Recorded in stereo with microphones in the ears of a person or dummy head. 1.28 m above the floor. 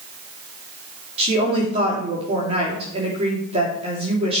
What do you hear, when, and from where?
1.2 s a woman speaking: 30° right (ahead or behind), 3 m